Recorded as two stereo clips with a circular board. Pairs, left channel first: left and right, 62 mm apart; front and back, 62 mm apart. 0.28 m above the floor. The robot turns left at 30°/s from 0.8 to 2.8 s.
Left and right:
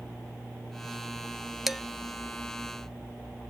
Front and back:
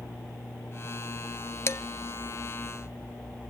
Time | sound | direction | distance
1.7 | dishes clattering | 5° right | 0.7 m